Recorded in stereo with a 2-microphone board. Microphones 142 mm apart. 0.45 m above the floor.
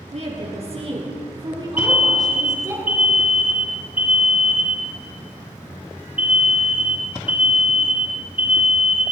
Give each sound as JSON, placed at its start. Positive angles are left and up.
{"t": 0.1, "sound": "a woman speaking", "side_deg": -55, "distance_m": 6.5}
{"t": 1.8, "sound": "an alarm", "side_deg": -10, "distance_m": 3.5}